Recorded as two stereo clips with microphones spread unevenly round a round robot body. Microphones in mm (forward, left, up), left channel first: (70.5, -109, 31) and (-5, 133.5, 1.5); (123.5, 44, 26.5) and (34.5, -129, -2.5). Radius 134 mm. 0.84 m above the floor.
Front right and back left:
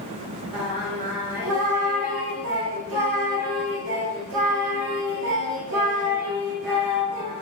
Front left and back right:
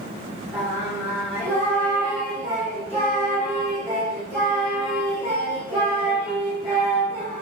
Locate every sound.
0.5 s singing: 155° left, 0.7 m